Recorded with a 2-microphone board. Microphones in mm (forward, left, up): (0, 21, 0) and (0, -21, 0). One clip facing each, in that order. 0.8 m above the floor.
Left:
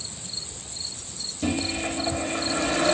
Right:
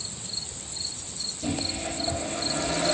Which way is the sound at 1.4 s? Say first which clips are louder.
Left 4 dB; 60° left (ahead or behind).